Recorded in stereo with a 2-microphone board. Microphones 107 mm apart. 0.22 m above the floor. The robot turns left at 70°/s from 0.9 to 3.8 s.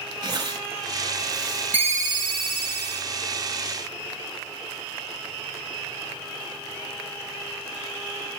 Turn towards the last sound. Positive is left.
turn(degrees=-160)